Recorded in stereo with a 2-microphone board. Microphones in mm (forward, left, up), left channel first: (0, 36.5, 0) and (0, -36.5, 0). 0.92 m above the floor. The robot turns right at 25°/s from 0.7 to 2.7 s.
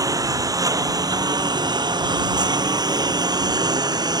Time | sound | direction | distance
0.0 | a lawn mower | 55° right (ahead or behind) | ?